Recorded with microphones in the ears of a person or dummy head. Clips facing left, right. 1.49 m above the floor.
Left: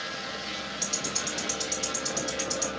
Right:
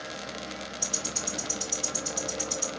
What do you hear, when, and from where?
0.8 s ticking: 50° left (ahead or behind), 2.5 m